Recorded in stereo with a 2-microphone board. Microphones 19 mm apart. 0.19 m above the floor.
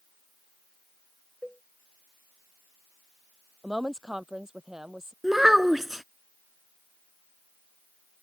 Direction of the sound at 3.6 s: 30° right (ahead or behind).